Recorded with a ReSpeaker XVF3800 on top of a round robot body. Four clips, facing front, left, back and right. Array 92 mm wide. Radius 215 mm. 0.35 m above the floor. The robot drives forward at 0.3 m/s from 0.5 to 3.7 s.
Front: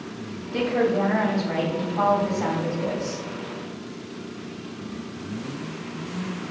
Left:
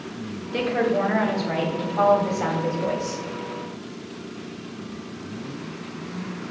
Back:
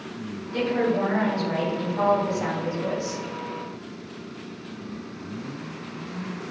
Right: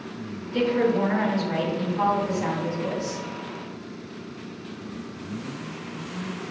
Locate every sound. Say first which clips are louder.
0.5 s a woman speaking: even, front 1 dB; 80° left, 3 m; by 3.2 s 100° left, 3 m